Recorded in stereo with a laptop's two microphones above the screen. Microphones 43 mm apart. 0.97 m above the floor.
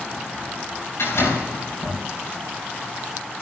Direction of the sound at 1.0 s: 90° left.